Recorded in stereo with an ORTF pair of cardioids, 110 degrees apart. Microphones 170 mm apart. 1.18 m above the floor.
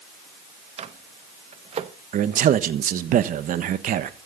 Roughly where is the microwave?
Ahead right.